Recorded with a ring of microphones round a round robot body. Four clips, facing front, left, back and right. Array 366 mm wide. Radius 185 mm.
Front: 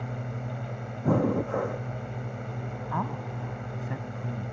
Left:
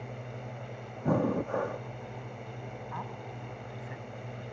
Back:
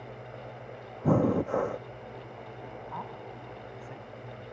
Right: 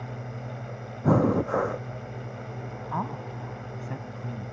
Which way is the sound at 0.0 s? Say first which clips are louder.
Right 4 dB, front 6 dB; 20° right.